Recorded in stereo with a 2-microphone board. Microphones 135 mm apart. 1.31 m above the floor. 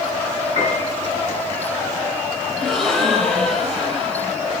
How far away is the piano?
About 6 m.